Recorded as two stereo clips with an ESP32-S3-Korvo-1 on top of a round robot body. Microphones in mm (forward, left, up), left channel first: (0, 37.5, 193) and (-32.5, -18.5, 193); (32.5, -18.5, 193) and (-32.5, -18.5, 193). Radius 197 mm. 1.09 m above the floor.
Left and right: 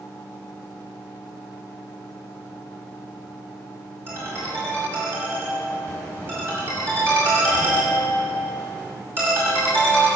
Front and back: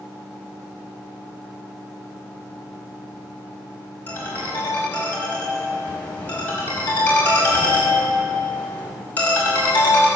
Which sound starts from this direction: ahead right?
A ringtone, at 4.1 s.